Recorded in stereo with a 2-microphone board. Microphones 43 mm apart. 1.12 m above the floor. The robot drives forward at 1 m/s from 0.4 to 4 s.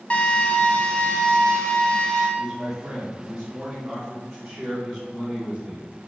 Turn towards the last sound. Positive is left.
turn(degrees=-10)  # may be behind; listen again after turning